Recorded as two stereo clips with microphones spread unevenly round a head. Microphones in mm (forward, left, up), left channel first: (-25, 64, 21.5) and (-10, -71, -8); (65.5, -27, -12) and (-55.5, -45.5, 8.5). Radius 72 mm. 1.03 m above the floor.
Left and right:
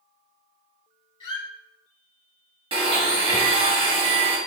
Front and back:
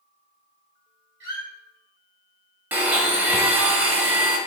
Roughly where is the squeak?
Behind left.